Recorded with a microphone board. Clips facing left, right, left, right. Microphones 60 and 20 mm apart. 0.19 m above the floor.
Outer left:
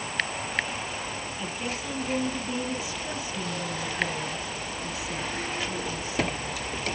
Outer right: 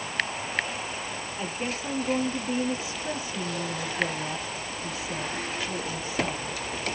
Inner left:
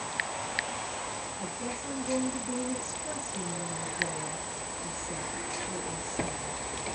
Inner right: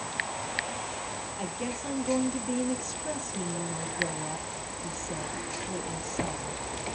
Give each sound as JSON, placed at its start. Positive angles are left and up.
{"t": 1.4, "sound": "a woman speaking", "side_deg": -30, "distance_m": 5.0}